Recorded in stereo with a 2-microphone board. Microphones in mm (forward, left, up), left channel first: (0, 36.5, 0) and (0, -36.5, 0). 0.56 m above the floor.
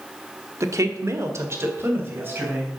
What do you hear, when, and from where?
0.6 s a woman speaking: 45° right (ahead or behind), 0.9 m; by 2.8 s 30° right (ahead or behind), 3.5 m